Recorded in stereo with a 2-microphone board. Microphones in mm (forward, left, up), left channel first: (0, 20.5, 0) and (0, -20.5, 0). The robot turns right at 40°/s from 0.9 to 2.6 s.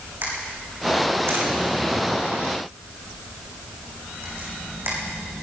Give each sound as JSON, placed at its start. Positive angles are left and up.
{"t": 0.2, "sound": "a camera shutter", "side_deg": -55, "distance_m": 5.0}